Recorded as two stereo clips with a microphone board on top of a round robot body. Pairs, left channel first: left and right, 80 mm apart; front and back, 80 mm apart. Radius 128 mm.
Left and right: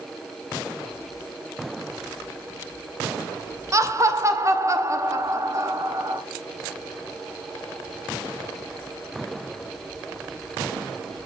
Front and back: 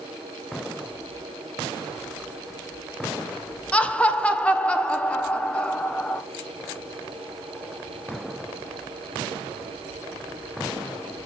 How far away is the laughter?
About 0.9 m.